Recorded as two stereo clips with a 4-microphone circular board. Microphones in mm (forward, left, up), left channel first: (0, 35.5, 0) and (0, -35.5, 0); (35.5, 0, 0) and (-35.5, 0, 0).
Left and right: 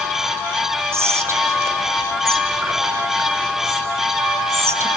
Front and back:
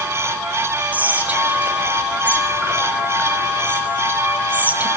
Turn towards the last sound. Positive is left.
turn(degrees=-120)